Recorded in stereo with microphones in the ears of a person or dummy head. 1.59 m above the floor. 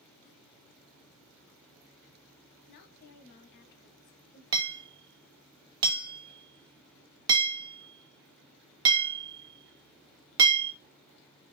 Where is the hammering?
25° right (ahead or behind), 0.7 m.